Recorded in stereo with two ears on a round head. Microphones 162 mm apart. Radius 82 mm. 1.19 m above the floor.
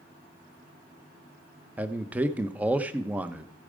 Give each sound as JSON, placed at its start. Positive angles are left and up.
{"t": 1.8, "sound": "a man speaking", "side_deg": -10, "distance_m": 0.8}